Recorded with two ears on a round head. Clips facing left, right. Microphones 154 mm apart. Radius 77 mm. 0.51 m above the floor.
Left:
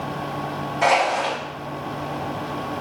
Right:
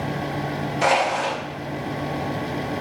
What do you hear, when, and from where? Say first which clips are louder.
0.8 s crushing: left 2 dB; 30° right (ahead or behind), 1.6 m